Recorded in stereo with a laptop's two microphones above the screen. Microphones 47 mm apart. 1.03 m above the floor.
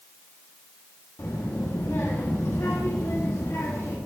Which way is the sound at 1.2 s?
85° left.